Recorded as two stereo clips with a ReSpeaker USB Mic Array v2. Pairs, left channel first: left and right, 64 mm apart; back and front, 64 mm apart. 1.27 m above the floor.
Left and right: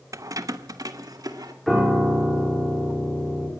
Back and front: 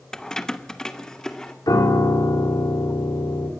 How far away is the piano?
About 4.5 m.